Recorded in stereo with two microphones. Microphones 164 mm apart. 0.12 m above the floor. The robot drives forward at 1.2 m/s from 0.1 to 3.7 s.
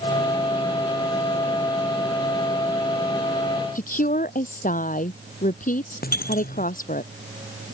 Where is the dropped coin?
70° left (ahead or behind).